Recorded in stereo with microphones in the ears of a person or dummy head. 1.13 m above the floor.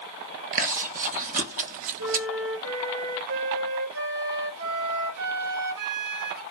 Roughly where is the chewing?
Right.